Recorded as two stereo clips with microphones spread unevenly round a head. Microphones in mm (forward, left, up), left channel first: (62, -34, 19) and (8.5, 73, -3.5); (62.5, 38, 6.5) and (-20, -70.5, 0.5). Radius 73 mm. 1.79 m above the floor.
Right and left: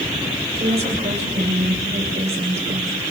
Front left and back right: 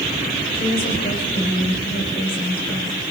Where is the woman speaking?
85° left, 9 m.